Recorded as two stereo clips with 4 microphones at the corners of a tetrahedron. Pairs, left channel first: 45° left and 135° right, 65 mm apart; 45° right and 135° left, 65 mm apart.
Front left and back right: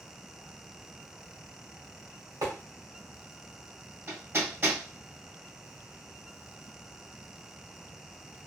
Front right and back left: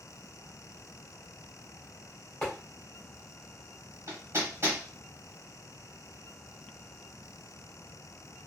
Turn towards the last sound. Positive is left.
turn(degrees=180)